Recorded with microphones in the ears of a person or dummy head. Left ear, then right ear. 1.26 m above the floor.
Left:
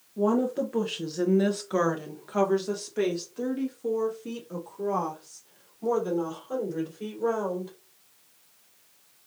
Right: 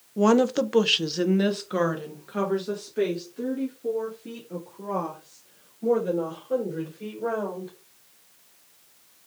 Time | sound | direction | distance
0.2 | a woman speaking | 65° right (ahead or behind) | 0.6 m